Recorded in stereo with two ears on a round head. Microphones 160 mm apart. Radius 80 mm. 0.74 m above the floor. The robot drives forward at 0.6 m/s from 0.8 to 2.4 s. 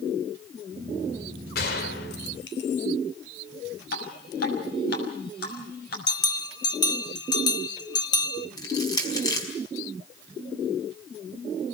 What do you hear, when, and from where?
1.6 s a gunshot: 55° left (ahead or behind), 2.5 m; by 2.9 s 65° left (ahead or behind), 2.5 m
3.9 s dripping: 60° left (ahead or behind), 6.5 m
6.1 s a bell: 25° left (ahead or behind), 0.8 m
8.6 s crushing: 20° left (ahead or behind), 5 m